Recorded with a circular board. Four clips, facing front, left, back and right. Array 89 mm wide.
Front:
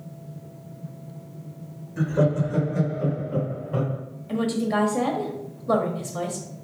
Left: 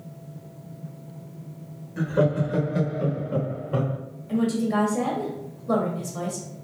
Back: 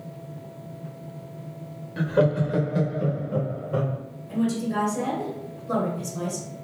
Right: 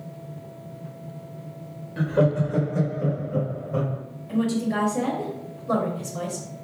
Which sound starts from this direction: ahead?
A woman speaking, at 4.3 s.